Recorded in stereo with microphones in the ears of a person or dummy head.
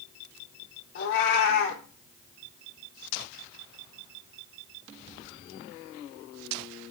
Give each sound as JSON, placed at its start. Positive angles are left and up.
{"t": 0.9, "sound": "a cat meowing", "side_deg": 60, "distance_m": 1.8}